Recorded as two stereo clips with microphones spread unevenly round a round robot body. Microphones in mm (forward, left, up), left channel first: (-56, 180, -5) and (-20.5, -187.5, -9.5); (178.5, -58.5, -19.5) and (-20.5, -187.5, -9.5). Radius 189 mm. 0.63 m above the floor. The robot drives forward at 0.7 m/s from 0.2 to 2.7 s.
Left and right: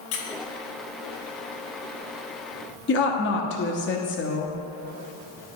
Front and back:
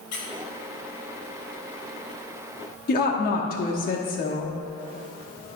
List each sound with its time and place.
0.1 s a squeak: 75° left, 0.9 m
2.9 s a woman speaking: 50° left, 0.8 m